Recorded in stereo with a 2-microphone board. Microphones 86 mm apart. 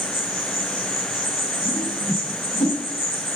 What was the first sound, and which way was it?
An insect, 35° left (ahead or behind).